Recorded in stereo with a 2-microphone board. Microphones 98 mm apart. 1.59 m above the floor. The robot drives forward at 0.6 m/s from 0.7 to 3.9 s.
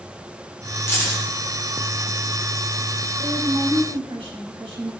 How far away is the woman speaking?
About 3.5 m.